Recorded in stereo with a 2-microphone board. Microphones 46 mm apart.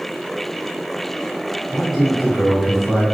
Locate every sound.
1.7 s a man speaking: 10° right (ahead or behind), 1.7 m